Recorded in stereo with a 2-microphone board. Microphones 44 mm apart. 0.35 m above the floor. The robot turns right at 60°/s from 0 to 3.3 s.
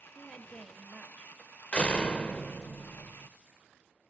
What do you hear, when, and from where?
0.1 s a woman speaking: 30° right, 1.0 m; by 1.3 s 40° left, 1.0 m
1.7 s a door slam: 25° left (ahead or behind), 0.5 m; by 3.3 s centre (ahead or behind), 0.5 m